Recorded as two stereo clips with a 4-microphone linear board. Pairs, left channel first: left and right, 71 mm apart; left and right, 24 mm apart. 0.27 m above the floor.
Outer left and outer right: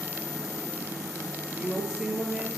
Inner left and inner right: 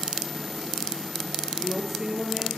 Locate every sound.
1.5 s a woman speaking: 10° right (ahead or behind), 4.5 m